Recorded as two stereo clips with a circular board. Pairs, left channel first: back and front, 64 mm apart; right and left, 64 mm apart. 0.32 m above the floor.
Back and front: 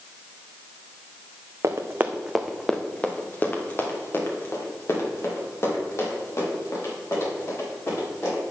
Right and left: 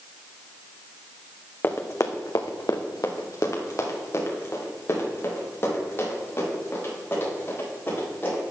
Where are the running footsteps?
35° right, 1.2 m; by 8.4 s 145° right, 8.5 m.